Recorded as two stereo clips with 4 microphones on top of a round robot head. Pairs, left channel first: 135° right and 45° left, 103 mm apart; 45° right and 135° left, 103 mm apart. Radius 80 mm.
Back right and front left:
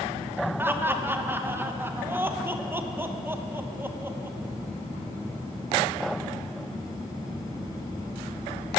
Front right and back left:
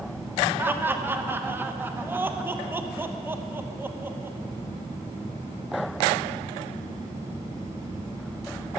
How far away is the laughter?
About 1.0 m.